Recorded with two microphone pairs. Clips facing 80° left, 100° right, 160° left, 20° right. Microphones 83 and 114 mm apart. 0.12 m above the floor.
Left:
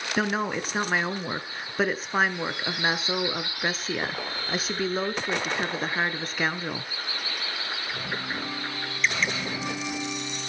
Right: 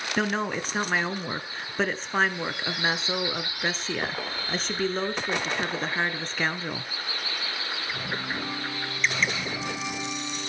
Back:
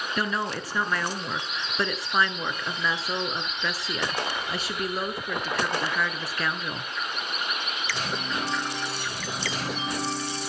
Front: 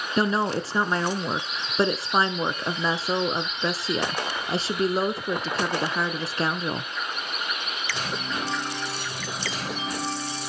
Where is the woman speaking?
Straight ahead, 1.2 m.